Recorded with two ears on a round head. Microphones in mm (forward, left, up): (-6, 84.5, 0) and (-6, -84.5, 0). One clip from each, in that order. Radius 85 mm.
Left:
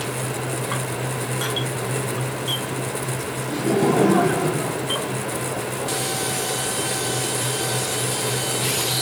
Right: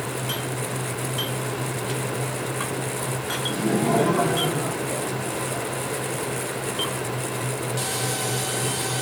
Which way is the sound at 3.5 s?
10° left (ahead or behind).